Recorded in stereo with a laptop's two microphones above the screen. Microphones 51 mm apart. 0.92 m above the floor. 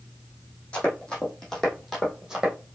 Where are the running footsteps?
20° left (ahead or behind), 2 m; by 2.5 s 15° right (ahead or behind), 1.8 m.